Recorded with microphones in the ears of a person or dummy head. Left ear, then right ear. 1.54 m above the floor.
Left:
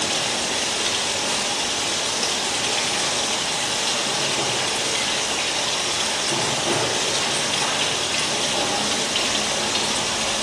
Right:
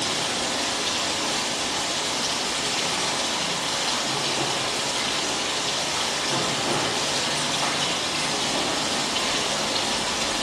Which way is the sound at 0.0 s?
45° left (ahead or behind).